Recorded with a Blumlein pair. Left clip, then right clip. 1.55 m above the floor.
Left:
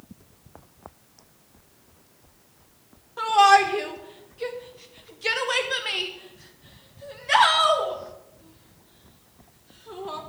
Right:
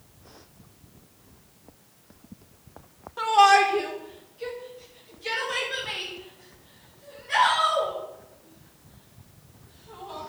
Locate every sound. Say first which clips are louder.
3.2 s a shout: left 1 dB; straight ahead, 1.5 m; by 10.2 s 50° left, 4.5 m